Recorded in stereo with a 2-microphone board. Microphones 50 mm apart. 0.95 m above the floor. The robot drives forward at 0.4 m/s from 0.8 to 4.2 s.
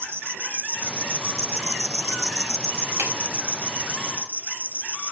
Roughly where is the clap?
Right.